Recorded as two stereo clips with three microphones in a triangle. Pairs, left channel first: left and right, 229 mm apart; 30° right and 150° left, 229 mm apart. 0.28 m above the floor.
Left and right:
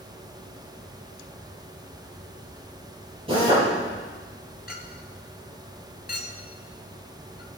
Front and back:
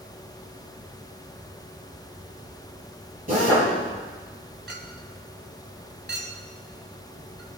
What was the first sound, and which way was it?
A drill, 155° right.